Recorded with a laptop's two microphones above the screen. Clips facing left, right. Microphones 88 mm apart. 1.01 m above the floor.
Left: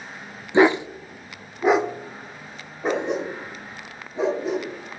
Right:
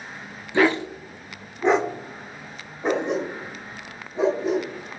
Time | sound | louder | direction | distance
0.5 | a dog barking | left 3 dB | 20° left (ahead or behind) | 0.5 m